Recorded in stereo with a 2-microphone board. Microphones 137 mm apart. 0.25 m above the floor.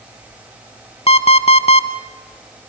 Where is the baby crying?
I don't hear a baby crying.